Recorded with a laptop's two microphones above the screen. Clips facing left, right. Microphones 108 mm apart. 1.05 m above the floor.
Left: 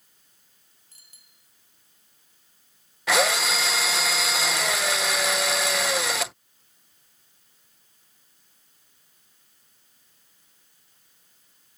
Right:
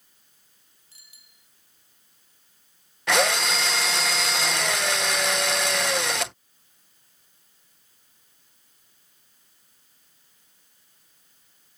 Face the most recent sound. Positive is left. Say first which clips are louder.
# even
turn(degrees=5)  # may be behind; listen again after turning